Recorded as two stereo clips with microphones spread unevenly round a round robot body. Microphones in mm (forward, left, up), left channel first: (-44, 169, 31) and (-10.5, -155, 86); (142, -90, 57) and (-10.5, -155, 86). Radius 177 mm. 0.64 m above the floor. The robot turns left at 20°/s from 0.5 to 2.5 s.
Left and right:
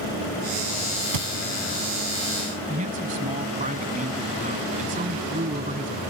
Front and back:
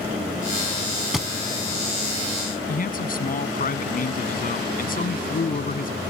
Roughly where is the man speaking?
Ahead.